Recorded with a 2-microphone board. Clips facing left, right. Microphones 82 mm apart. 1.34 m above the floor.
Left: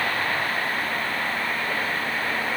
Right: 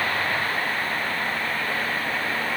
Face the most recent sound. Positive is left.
No sound to turn to.